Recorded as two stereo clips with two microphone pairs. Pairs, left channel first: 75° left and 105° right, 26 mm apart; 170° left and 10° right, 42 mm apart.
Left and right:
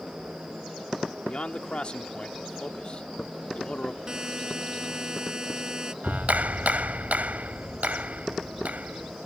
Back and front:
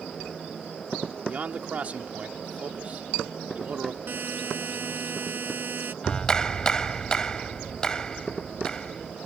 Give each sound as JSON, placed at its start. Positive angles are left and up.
{"t": 1.3, "sound": "a man speaking", "azimuth_deg": 35}
{"t": 4.1, "sound": "a buzzer", "azimuth_deg": -40}
{"t": 6.0, "sound": "a clap", "azimuth_deg": -115}